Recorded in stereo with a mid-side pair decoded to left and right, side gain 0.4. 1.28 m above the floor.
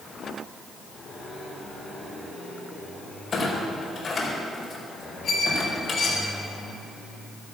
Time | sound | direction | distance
3.3 | a clunk | 45° left | 4.5 m
5.2 | a squeak | 65° left | 4.5 m